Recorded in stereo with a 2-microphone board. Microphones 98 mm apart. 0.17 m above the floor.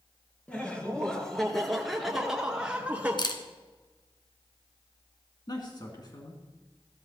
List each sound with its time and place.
0.5 s laughter: 15° left (ahead or behind), 2.5 m; by 3.2 s 15° right (ahead or behind), 1.7 m
3.2 s a camera shutter: 50° left (ahead or behind), 1.1 m
5.5 s a man speaking: 45° left (ahead or behind), 2.5 m